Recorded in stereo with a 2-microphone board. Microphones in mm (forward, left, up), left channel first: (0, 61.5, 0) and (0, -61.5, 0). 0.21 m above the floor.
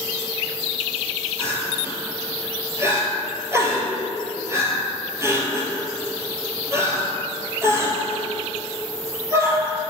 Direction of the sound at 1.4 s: 25° right (ahead or behind).